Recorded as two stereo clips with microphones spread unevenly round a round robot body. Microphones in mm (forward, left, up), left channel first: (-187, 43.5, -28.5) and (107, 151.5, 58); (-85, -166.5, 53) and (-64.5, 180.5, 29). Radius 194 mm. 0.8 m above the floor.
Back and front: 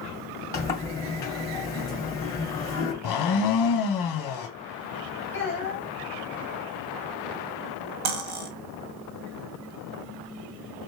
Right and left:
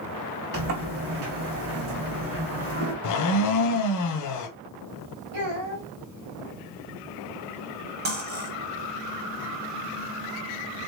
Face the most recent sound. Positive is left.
turn(degrees=20)